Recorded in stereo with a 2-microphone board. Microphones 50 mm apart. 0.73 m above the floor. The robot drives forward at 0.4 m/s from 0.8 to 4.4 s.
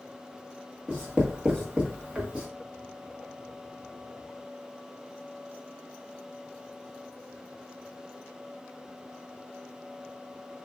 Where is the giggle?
I don't hear a giggle.